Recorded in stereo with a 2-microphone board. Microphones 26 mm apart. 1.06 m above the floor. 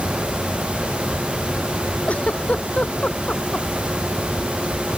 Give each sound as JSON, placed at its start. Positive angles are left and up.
{"t": 2.1, "sound": "a giggle", "side_deg": 55}